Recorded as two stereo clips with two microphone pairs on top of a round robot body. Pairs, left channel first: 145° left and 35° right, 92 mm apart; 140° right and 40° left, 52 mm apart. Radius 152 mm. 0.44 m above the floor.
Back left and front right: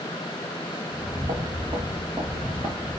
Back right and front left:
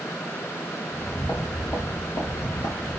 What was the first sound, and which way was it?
Footsteps, 80° right.